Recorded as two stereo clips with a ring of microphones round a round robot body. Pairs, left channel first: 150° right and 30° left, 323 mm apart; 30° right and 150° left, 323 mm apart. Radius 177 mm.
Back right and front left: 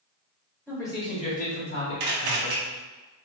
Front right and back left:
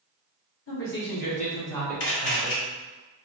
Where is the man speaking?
65° right, 1.8 m; by 2.6 s 140° right, 1.8 m.